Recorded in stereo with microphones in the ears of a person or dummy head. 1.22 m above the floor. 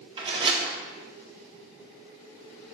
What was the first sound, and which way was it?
A door slam, 25° right (ahead or behind).